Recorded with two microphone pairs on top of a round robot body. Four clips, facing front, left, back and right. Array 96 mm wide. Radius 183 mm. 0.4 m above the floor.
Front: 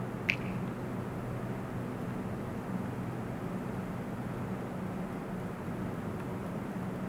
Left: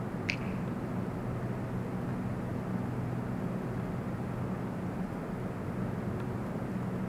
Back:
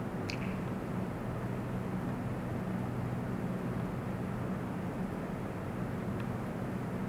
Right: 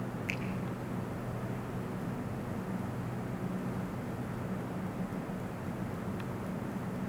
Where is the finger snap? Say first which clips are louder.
Left 1 dB, front 3 dB; 35° left, 2.5 m.